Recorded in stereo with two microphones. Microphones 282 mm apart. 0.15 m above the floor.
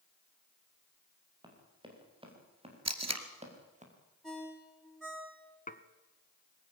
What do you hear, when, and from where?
1.4 s running footsteps: 15° right (ahead or behind), 7.5 m; by 3.9 s 25° right (ahead or behind), 6.5 m
2.9 s tape being pulled: 65° right (ahead or behind), 1.8 m
4.2 s a ringtone: centre (ahead or behind), 6 m
5.7 s dishes clattering: 30° left (ahead or behind), 1.1 m